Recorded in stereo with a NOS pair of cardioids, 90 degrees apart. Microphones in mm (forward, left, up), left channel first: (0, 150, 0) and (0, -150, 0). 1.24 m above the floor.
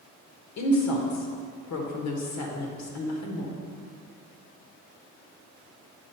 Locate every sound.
0.6 s a woman speaking: 65° left, 1.5 m